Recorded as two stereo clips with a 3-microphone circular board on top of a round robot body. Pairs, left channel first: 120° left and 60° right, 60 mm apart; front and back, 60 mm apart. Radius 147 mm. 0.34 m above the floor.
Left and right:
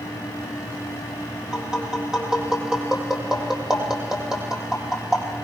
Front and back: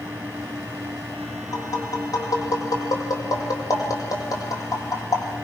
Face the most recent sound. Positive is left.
turn(degrees=20)